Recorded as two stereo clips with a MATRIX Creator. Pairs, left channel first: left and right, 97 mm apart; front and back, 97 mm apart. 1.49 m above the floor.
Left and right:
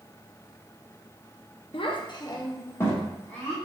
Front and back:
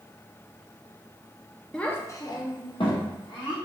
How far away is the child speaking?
About 0.6 m.